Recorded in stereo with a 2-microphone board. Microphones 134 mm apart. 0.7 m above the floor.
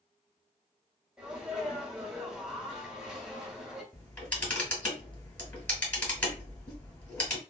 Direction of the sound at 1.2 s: 5° right (ahead or behind).